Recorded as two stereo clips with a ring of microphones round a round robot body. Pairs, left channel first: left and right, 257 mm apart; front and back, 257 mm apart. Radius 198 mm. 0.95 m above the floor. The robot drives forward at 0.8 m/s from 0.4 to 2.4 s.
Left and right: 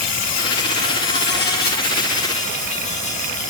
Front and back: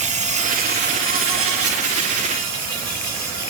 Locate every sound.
0.0 s an insect: 115° left, 1.1 m; by 3.5 s 155° left, 2 m